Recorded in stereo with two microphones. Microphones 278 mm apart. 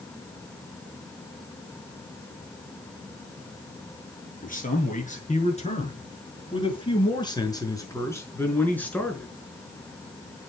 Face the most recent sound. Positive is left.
turn(degrees=0)  # may be behind; listen again after turning